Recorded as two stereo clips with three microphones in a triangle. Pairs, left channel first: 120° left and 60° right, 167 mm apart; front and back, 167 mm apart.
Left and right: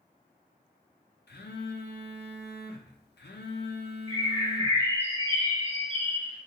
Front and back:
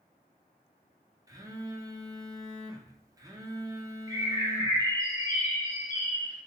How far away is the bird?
About 1.3 m.